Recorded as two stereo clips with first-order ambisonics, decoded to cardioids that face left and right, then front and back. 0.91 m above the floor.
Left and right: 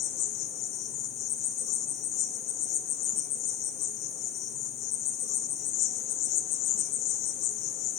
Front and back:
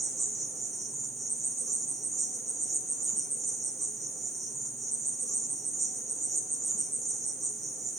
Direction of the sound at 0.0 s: 95° left.